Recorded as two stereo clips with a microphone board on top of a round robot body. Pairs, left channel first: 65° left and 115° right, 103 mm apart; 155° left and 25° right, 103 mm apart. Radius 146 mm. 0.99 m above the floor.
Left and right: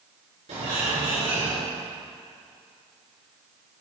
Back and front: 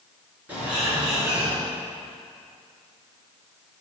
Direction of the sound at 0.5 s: 100° right.